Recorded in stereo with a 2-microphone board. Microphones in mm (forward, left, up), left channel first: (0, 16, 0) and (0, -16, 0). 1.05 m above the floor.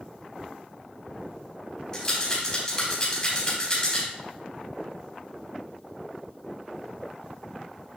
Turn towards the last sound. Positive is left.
turn(degrees=30)  # may be behind; listen again after turning